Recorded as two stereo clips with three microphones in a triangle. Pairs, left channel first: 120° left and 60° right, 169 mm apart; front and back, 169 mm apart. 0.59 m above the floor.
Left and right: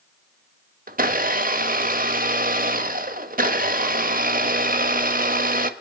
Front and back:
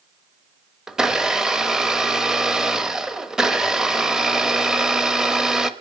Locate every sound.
0.9 s a blender: 95° right, 0.9 m